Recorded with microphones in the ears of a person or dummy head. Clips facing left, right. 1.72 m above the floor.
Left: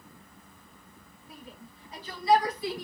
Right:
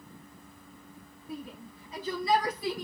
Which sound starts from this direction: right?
A shout, at 1.3 s.